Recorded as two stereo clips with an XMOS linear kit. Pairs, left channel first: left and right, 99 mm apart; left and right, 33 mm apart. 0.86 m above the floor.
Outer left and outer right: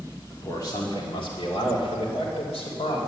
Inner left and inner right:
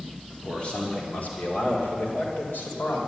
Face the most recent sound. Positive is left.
turn(degrees=80)